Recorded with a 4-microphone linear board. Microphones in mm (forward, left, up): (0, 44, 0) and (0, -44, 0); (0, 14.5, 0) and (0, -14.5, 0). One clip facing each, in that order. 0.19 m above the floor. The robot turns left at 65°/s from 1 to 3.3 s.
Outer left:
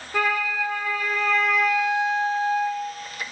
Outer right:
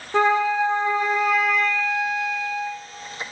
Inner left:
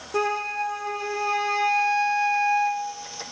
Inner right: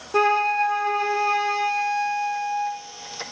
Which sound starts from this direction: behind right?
A flute, at 0.1 s.